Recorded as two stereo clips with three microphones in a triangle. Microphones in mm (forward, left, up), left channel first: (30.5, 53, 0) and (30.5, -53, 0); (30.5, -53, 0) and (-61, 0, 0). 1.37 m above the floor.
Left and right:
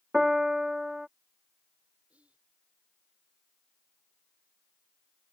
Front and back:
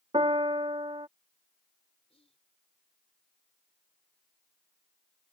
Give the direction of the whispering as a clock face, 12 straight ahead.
12 o'clock.